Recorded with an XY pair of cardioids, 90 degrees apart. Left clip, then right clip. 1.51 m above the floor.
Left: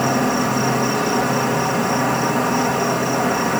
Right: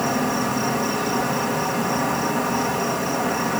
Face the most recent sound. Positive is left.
turn(degrees=35)